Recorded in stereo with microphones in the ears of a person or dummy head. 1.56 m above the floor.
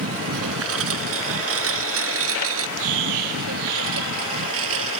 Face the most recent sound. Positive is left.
turn(degrees=-70)  # may be behind; listen again after turning